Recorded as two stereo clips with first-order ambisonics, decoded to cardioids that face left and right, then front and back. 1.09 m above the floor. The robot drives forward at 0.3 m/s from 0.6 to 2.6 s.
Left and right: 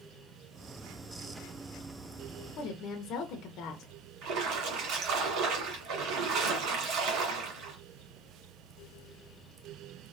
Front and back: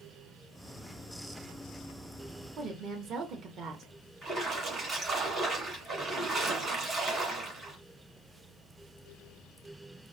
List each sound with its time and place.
2.6 s a woman speaking: 125° left, 0.7 m
4.2 s a splash: 110° right, 1.8 m